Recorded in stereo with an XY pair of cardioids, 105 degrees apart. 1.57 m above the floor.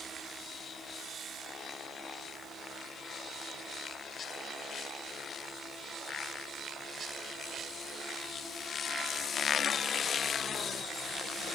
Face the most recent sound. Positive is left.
No sound to turn to.